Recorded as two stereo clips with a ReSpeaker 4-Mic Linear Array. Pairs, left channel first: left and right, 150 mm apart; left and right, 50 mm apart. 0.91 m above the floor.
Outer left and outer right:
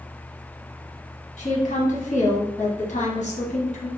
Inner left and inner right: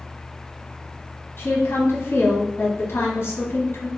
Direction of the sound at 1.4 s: 50° left (ahead or behind).